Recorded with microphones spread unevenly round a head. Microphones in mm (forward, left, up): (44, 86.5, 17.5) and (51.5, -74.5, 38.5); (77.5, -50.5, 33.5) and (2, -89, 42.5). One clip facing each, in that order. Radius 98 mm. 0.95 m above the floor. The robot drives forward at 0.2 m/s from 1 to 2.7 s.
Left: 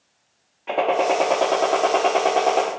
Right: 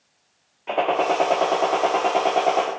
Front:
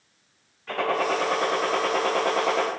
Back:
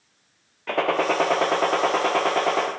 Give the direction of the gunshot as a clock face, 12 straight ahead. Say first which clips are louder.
Left 1 dB, back 3 dB; 6 o'clock.